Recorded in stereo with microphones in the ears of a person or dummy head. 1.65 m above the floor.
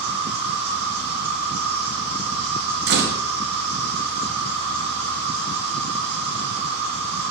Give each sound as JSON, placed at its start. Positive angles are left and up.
{"t": 0.0, "sound": "an insect", "side_deg": -35, "distance_m": 1.9}
{"t": 2.9, "sound": "a door slam", "side_deg": -60, "distance_m": 0.9}